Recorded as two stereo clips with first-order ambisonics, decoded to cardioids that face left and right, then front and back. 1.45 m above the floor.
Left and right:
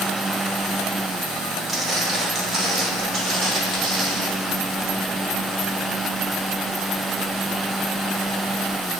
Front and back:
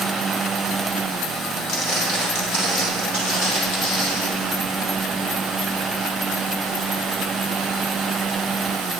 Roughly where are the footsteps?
Ahead.